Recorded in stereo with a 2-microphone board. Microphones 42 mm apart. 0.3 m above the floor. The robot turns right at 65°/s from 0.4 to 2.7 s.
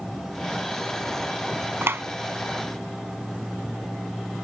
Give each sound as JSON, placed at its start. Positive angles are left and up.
{"t": 1.8, "sound": "a clap", "side_deg": -65}